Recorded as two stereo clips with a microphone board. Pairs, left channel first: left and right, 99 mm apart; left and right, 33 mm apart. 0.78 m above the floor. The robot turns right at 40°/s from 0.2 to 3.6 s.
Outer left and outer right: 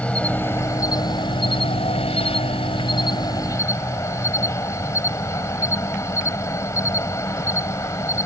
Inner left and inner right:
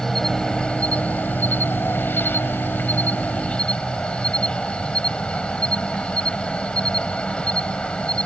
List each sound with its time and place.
0.0 s an insect: 10° left; by 8.3 s 150° left